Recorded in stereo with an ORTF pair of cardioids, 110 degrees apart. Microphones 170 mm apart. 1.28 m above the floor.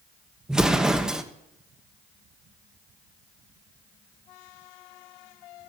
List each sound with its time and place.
0.5 s an explosion: 5° right, 1.0 m